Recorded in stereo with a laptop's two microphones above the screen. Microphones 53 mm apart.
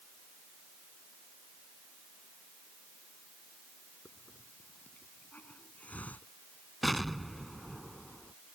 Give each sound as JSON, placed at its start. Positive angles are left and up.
{"t": 4.0, "sound": "a hiss", "side_deg": 25}
{"t": 6.8, "sound": "an explosion", "side_deg": 0}